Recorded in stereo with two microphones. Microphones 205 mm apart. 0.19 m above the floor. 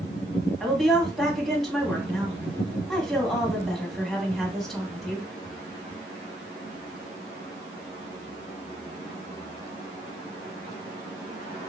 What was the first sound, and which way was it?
A woman speaking, centre (ahead or behind).